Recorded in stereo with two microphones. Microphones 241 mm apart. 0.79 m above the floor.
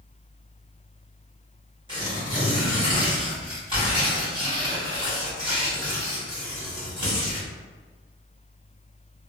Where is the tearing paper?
20° right (ahead or behind), 1.9 m.